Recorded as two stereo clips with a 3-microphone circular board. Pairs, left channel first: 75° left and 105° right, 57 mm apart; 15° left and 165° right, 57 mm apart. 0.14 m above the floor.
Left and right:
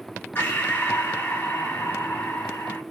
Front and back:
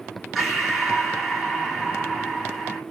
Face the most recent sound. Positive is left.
turn(degrees=110)